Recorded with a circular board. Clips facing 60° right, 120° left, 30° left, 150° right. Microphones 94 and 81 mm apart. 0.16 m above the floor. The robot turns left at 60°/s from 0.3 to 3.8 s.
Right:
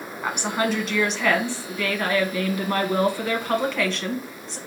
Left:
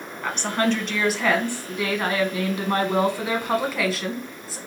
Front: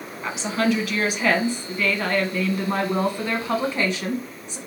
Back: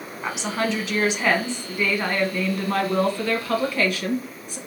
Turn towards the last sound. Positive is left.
turn(degrees=40)